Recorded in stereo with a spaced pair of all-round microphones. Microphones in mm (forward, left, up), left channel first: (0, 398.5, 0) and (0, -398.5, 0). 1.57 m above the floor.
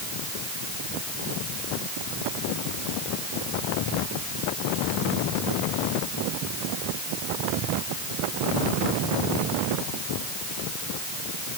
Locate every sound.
Only background noise.